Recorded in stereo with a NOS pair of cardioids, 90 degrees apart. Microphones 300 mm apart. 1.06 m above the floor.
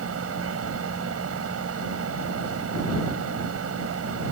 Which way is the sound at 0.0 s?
50° right.